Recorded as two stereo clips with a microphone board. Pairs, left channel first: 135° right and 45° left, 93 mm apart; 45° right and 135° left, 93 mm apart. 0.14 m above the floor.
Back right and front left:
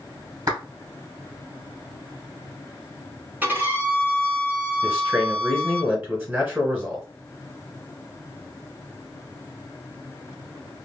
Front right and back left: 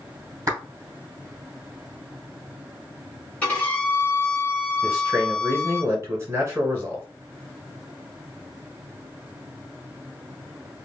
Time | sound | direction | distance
0.5 | a clap | 85° left | 2.5 m
3.4 | a violin | 5° left | 1.8 m
4.8 | a man speaking | 100° left | 1.7 m